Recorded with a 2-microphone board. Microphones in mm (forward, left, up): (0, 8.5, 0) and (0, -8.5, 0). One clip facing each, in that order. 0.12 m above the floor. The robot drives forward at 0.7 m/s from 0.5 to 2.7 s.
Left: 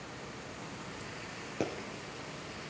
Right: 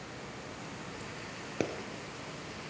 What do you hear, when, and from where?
1.6 s a pop: 20° right (ahead or behind), 1.6 m